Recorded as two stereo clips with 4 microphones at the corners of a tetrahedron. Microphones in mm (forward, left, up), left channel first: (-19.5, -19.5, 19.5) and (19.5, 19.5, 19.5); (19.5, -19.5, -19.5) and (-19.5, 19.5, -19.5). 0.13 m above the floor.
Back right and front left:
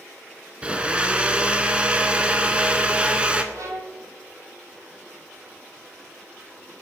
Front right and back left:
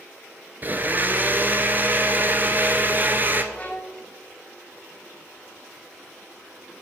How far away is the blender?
About 0.6 m.